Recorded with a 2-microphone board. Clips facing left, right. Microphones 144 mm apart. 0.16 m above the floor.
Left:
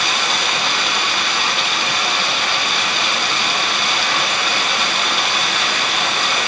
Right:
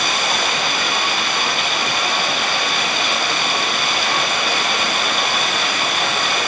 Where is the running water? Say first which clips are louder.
Right 1 dB; 50° right (ahead or behind), 3.5 m.